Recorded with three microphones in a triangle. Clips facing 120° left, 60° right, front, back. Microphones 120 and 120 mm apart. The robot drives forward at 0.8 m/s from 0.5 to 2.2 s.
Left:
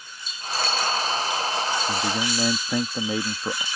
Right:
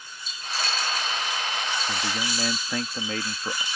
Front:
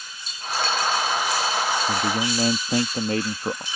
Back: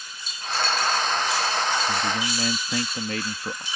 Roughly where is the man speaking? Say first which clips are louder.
Left 4 dB, front 3 dB; ahead left.